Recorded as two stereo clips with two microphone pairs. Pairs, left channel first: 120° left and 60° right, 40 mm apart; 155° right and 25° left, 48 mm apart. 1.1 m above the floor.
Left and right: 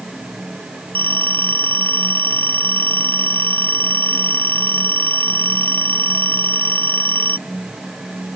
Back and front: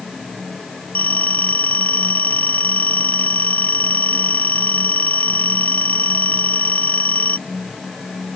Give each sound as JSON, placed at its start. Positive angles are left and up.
{"t": 0.9, "sound": "a phone ringing", "azimuth_deg": 150}